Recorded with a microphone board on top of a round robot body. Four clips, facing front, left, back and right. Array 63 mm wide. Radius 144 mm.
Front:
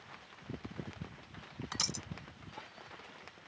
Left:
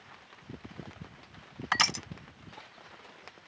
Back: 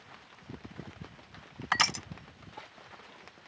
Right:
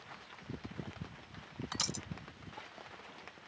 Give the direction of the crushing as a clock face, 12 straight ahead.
7 o'clock.